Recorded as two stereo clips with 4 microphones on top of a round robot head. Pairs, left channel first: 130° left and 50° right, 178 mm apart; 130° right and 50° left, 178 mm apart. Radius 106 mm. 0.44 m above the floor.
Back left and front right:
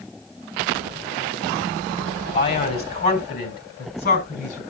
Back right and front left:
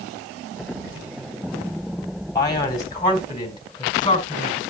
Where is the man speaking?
160° left, 3.5 m.